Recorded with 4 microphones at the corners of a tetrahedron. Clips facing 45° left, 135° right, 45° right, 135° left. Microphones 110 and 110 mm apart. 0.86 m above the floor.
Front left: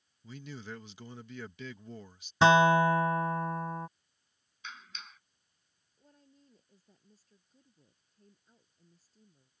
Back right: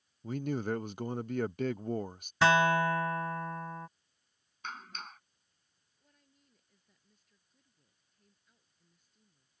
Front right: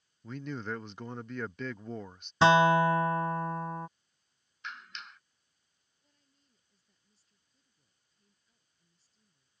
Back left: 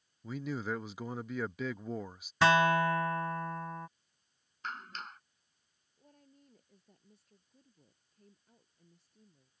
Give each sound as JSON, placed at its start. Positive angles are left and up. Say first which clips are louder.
{"t": 0.2, "sound": "a man speaking", "louder": "back right 11 dB, back left 1 dB", "azimuth_deg": -145}
{"t": 2.4, "sound": "a guitar", "louder": "front left 4 dB, front right 4 dB", "azimuth_deg": 0}
{"t": 4.6, "sound": "a clap", "louder": "back right 5 dB, back left 3 dB", "azimuth_deg": -175}
{"t": 6.0, "sound": "a woman speaking", "louder": "front left 9 dB, back left 15 dB", "azimuth_deg": 100}